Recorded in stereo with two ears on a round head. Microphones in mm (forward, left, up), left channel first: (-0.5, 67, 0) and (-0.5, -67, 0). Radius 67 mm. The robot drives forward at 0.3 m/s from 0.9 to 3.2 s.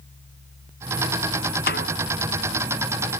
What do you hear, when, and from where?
1.7 s a snare drum: 70° left (ahead or behind)